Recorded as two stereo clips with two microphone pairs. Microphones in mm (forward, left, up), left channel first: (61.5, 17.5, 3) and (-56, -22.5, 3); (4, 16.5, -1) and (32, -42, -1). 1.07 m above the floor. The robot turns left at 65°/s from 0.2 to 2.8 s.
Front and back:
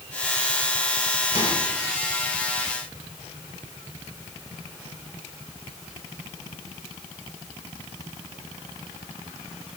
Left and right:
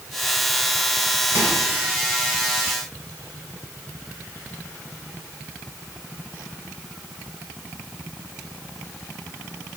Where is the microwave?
15° right, 3 m; by 1.6 s 30° right, 3 m.